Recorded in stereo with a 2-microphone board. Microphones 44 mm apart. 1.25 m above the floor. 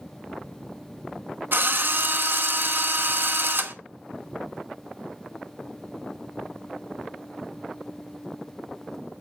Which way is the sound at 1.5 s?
50° right (ahead or behind).